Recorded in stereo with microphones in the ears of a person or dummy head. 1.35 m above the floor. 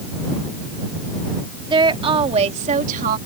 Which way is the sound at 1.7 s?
25° right (ahead or behind).